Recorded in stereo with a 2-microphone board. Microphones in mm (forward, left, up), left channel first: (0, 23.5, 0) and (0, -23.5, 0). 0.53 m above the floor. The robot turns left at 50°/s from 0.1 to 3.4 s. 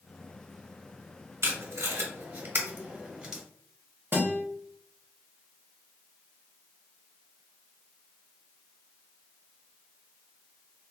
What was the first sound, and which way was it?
Tape being pulled, 70° right (ahead or behind).